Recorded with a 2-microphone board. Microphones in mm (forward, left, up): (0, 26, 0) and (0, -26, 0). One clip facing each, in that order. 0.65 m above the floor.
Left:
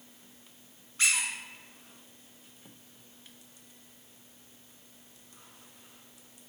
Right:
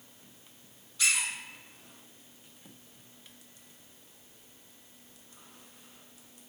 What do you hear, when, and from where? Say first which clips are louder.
1.0 s a squeak: left 1 dB; 45° left (ahead or behind), 0.6 m